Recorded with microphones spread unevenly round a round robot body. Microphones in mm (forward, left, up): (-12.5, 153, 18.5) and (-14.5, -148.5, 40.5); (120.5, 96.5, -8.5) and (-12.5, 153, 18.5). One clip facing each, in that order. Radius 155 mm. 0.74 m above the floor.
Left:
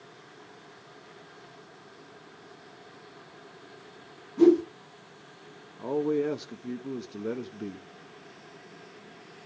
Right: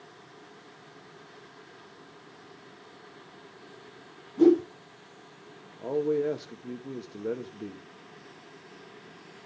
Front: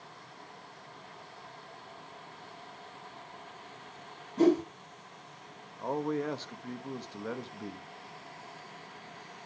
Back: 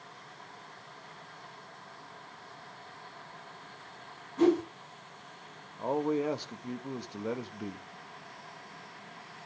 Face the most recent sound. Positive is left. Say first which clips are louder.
# even, back 3 dB
turn(degrees=75)